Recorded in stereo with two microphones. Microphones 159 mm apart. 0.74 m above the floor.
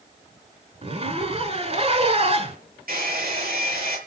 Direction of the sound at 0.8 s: 40° right (ahead or behind).